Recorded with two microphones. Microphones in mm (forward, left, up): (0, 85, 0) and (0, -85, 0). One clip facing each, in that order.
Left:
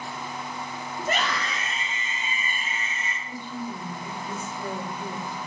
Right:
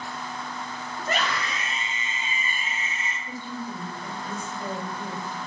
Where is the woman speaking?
15° right (ahead or behind), 5 m.